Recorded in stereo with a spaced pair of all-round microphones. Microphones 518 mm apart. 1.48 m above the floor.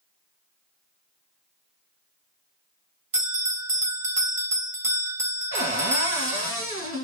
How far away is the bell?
About 1.4 m.